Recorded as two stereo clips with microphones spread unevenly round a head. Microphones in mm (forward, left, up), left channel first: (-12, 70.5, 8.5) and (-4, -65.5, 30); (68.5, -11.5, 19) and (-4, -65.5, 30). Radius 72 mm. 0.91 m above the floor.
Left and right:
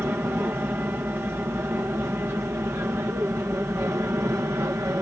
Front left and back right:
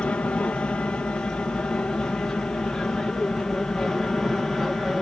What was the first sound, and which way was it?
An aircraft, 15° right.